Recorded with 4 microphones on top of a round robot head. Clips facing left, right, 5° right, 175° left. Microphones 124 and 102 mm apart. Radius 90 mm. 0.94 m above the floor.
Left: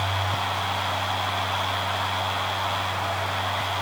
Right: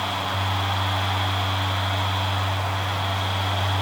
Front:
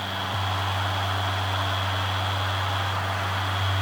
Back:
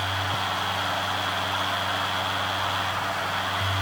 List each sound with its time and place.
Only background noise.